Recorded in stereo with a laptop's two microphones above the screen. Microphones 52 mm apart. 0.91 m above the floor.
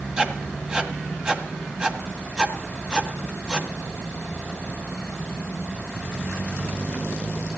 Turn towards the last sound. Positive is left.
turn(degrees=-15)  # may be behind; listen again after turning